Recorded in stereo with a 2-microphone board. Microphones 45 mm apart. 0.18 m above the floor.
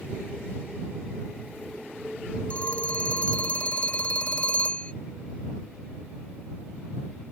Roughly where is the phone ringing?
Left.